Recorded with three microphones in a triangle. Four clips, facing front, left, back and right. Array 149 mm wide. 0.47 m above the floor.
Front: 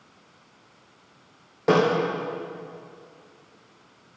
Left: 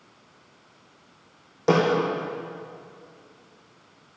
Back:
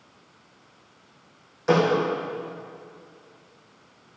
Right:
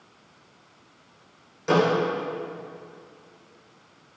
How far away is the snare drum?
About 6.5 m.